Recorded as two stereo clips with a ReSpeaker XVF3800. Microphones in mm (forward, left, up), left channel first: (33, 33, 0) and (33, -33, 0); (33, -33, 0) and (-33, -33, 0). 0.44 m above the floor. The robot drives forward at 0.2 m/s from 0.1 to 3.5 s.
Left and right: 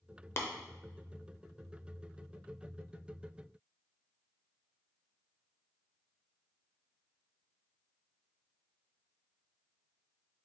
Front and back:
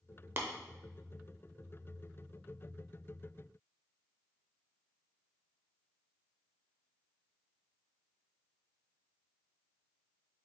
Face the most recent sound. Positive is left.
turn(degrees=160)